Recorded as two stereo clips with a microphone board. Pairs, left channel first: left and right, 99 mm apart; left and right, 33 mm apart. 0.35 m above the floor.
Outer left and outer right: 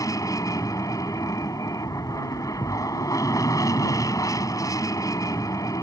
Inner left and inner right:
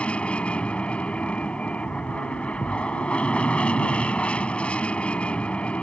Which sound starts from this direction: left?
An aircraft, at 0.0 s.